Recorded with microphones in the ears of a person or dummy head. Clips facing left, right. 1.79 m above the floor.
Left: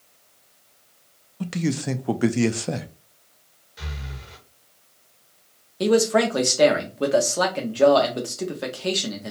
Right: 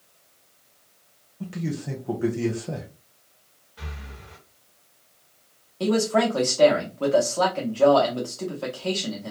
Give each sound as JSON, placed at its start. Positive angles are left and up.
{"t": 1.4, "sound": "a man speaking", "side_deg": 80, "distance_m": 0.5}
{"t": 3.8, "sound": "breathing", "side_deg": 30, "distance_m": 1.1}
{"t": 5.8, "sound": "a man speaking", "side_deg": 20, "distance_m": 0.8}